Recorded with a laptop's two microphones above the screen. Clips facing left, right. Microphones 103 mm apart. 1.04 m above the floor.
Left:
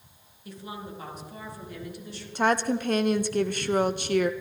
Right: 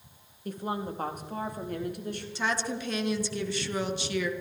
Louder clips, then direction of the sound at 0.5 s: Right 6 dB; 45° right (ahead or behind).